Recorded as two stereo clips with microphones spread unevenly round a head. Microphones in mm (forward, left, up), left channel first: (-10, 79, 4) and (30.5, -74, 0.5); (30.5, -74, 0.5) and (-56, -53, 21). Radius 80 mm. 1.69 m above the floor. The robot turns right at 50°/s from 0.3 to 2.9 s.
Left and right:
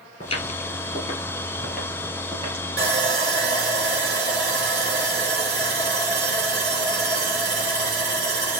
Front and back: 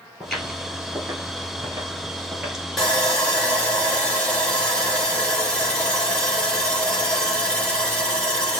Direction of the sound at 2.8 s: 105° right.